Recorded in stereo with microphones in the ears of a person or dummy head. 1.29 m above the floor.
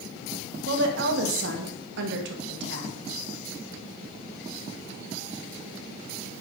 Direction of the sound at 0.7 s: 70° right (ahead or behind).